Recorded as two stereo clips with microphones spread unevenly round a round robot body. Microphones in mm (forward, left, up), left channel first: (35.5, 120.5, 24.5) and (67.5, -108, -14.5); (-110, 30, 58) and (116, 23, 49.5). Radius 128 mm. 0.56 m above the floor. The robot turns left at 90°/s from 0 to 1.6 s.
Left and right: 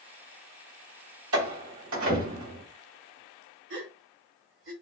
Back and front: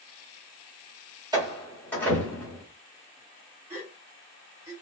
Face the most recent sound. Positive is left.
turn(degrees=-80)